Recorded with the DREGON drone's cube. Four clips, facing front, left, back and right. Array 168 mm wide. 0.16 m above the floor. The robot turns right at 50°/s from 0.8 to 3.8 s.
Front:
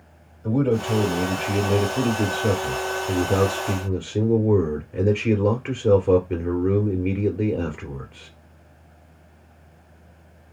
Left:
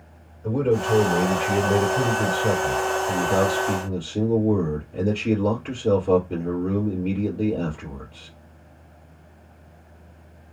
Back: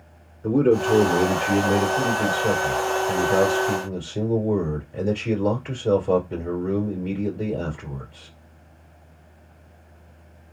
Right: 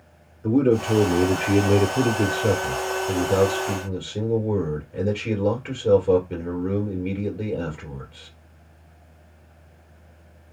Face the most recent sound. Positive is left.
turn(degrees=5)